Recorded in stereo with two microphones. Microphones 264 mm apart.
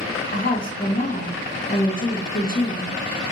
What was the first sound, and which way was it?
A woman speaking, 35° left (ahead or behind).